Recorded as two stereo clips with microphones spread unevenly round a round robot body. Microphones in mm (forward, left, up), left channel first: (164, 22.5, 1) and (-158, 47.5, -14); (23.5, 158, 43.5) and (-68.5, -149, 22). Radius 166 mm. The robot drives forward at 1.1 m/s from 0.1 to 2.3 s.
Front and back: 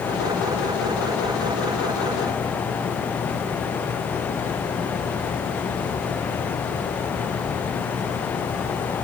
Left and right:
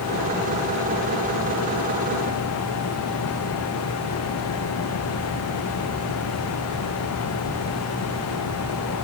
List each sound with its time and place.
Only background noise.